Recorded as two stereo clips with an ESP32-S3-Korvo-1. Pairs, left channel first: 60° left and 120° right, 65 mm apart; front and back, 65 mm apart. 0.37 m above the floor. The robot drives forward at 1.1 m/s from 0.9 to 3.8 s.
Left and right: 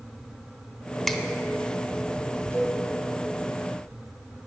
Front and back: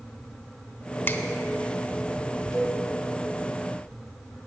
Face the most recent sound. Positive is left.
turn(degrees=-170)